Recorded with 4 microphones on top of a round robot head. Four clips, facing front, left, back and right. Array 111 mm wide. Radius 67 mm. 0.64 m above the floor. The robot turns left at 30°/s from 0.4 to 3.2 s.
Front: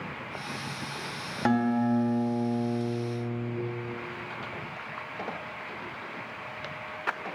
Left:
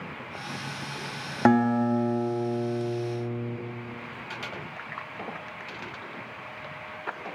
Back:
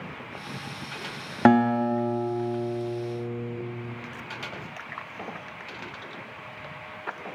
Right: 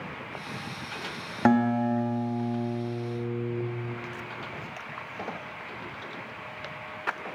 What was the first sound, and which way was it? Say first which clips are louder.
A guitar: left 1 dB, back 5 dB; 165° left.